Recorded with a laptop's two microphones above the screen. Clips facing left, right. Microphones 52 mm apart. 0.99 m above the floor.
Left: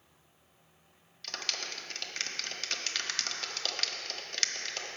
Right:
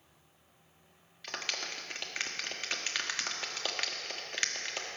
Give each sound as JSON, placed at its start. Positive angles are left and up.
{"t": 1.2, "sound": "a clap", "side_deg": -15, "distance_m": 1.2}